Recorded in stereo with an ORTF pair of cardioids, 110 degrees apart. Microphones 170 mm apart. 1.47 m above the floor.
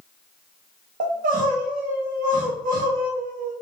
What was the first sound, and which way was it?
Crying, 55° right.